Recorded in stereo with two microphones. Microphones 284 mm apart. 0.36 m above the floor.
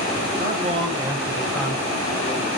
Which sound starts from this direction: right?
A man speaking, at 0.4 s.